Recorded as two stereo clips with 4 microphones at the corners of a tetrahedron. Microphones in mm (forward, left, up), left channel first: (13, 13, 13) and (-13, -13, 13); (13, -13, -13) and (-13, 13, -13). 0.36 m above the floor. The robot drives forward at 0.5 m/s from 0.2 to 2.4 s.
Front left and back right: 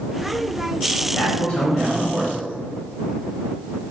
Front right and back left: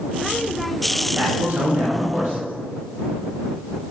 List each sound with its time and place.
1.1 s a man speaking: 90° left, 1.4 m; by 2.5 s 120° left, 1.5 m